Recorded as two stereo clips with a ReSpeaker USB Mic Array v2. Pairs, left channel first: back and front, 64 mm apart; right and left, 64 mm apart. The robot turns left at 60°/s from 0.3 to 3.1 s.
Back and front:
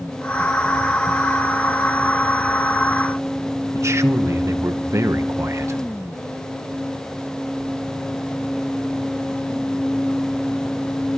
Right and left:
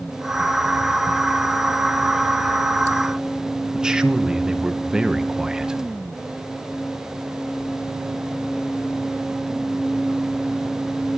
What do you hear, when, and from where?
3.7 s a man speaking: 15° left, 0.9 m